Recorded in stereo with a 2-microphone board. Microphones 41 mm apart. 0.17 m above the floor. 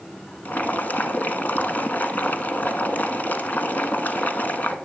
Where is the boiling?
45° left (ahead or behind), 1.0 m.